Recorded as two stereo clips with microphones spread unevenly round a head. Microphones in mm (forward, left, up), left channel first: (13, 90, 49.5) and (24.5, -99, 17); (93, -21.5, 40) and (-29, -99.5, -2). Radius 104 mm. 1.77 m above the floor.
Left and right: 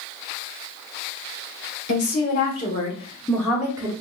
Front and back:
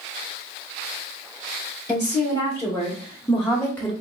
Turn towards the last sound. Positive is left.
turn(degrees=-10)